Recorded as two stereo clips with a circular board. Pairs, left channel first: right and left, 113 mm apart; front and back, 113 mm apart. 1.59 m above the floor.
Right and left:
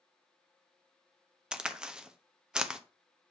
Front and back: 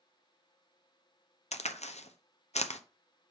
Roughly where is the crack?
Ahead.